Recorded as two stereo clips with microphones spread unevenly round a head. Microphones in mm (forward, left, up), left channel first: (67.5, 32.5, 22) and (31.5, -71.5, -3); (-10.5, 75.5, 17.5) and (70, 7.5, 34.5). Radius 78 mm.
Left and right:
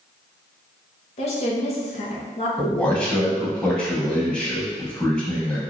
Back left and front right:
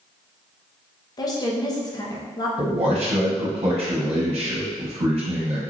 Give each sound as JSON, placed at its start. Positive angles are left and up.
{"t": 1.2, "sound": "a woman speaking", "azimuth_deg": 110, "distance_m": 0.8}
{"t": 2.6, "sound": "a man speaking", "azimuth_deg": -10, "distance_m": 1.0}